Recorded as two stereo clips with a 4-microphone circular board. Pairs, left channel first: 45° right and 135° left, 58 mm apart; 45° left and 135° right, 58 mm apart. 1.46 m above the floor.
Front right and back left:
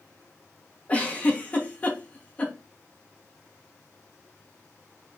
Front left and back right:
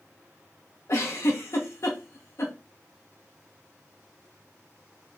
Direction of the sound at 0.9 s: 20° left.